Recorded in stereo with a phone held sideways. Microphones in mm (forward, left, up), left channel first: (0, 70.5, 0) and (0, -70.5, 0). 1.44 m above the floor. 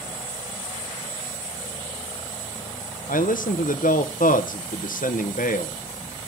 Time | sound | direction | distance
3.1 | a man speaking | 80° left | 0.9 m